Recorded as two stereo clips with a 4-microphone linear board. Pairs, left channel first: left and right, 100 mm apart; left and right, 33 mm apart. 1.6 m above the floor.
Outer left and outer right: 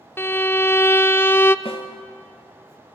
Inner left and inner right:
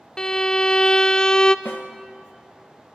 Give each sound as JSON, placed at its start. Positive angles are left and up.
{"t": 0.2, "sound": "a violin", "side_deg": 20, "distance_m": 0.6}
{"t": 1.6, "sound": "a snare drum", "side_deg": 65, "distance_m": 1.3}